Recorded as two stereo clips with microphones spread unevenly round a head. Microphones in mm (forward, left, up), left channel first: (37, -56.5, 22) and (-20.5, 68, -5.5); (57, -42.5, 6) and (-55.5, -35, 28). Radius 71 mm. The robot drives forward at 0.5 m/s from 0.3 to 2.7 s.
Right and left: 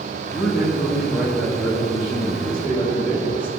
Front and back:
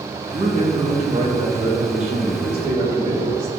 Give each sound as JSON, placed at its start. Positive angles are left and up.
{"t": 0.3, "sound": "a man speaking", "azimuth_deg": -150, "distance_m": 2.0}